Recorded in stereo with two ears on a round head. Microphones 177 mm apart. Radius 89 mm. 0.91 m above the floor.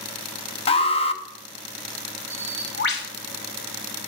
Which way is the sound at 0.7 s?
30° left (ahead or behind).